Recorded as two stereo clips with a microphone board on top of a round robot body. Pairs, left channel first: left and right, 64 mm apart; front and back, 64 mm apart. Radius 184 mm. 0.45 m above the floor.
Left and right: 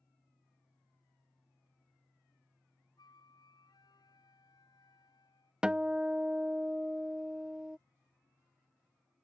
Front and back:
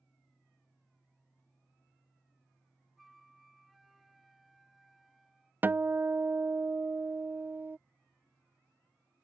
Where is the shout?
I don't hear a shout.